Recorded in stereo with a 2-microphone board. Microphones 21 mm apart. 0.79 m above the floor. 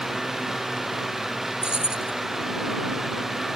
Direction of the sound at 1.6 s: 45° right (ahead or behind).